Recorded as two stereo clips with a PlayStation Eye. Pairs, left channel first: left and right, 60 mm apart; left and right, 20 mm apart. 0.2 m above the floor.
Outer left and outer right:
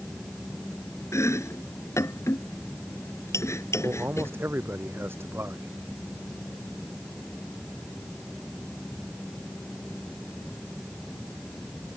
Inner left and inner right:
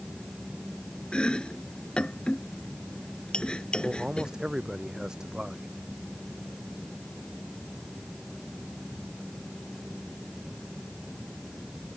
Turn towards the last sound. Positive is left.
turn(degrees=-40)  # may be behind; listen again after turning